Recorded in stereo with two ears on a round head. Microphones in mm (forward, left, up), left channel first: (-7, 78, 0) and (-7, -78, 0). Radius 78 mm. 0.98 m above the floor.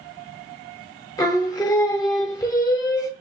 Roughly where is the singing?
Centre.